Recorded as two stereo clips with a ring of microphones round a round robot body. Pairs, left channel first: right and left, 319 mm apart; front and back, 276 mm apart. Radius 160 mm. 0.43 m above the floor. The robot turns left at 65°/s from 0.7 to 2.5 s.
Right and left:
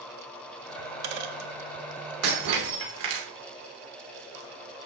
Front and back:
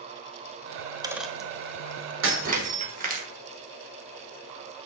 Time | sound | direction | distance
0.8 | a dropped coin | 120° left | 1.5 m
2.2 | breaking glass | 135° left | 4 m